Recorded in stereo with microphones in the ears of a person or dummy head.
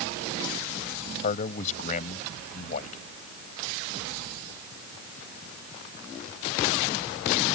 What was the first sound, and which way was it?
A man speaking, 40° left (ahead or behind).